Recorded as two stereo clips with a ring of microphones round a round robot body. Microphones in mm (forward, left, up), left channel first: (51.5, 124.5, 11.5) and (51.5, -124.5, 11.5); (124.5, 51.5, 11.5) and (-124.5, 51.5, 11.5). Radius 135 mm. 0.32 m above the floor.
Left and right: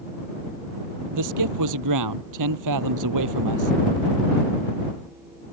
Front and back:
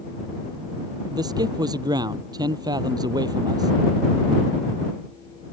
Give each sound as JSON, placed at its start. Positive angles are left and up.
{"t": 1.1, "sound": "a man speaking", "azimuth_deg": -105}